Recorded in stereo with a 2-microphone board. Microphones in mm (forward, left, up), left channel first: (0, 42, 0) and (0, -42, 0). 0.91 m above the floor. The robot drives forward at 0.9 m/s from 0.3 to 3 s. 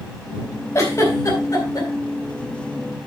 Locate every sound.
0.8 s a giggle: 30° left (ahead or behind), 4 m; by 1.9 s 40° left (ahead or behind), 3 m